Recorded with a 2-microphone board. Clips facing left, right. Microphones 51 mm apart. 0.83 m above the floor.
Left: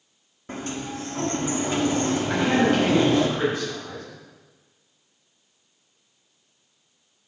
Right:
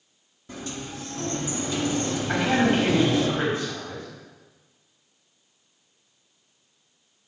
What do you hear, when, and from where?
0.5 s a sliding door: 45° left (ahead or behind), 1.4 m
2.3 s a man speaking: 30° right (ahead or behind), 5.5 m